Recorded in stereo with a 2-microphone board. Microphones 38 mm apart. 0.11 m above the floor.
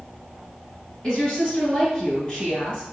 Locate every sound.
1.0 s a woman speaking: 20° left (ahead or behind), 1.7 m